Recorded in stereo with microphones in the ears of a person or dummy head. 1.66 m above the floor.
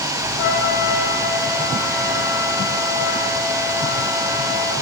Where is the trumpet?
60° left (ahead or behind), 6.5 m.